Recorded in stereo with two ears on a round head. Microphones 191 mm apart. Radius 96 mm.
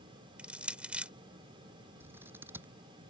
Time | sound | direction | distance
0.4 | crushing | 5° right (ahead or behind) | ?
2.0 | scissors | 10° right (ahead or behind) | ?